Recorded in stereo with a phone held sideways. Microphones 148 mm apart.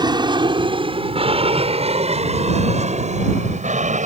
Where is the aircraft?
30° right (ahead or behind); by 4.1 s 50° right (ahead or behind).